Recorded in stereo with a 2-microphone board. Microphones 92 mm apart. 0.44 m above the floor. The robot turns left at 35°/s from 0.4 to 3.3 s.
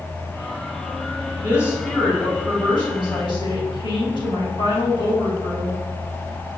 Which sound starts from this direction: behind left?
A woman speaking, at 1.4 s.